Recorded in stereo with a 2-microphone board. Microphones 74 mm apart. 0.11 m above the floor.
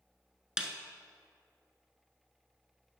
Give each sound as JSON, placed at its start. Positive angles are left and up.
{"t": 0.6, "sound": "a snare drum", "side_deg": -10, "distance_m": 0.9}